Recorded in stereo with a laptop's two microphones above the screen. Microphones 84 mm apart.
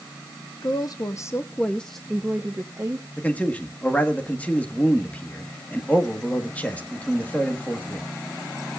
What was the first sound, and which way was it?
A woman speaking, 55° left (ahead or behind).